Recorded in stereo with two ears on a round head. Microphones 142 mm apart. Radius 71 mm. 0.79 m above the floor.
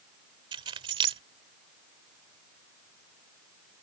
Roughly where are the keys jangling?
Right.